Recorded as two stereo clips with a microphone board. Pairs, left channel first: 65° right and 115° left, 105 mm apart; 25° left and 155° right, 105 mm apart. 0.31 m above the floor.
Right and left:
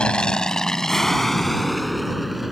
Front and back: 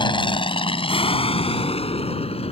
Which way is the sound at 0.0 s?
10° left.